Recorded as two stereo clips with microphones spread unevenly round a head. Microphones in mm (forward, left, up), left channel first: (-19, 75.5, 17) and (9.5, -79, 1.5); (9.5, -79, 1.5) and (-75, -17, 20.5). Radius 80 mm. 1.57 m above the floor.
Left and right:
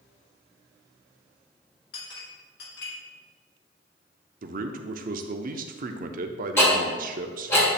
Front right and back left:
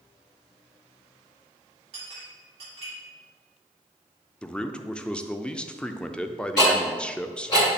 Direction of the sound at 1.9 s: 100° left.